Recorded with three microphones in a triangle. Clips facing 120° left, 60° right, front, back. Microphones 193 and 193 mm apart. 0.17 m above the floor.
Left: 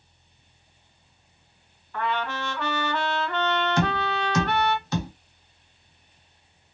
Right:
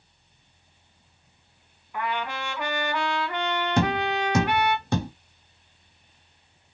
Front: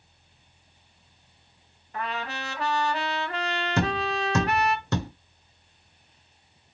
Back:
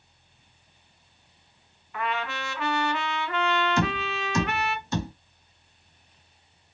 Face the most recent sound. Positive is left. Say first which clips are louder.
# right 2 dB, front 1 dB
turn(degrees=-25)